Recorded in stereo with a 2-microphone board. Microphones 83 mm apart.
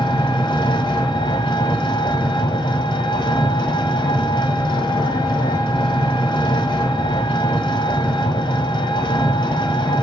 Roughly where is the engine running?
Left.